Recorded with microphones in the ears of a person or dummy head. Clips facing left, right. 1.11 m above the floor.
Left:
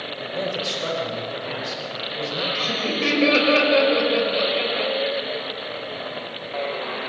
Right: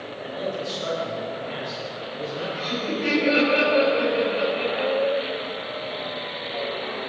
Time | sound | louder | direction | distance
0.2 | a man speaking | left 2 dB | 75° left (ahead or behind) | 5.5 m
2.5 | laughter | left 1 dB | 80° left | 6 m